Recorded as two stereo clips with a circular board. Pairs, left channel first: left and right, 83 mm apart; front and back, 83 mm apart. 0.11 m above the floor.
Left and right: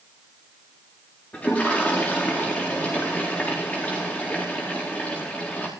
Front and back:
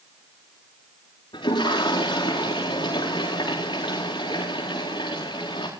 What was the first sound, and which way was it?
A toilet flushing, 15° left.